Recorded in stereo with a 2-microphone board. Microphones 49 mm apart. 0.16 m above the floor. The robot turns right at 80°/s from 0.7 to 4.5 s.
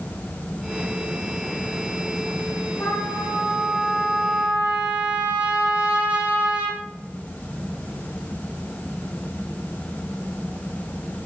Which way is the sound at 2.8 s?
70° left.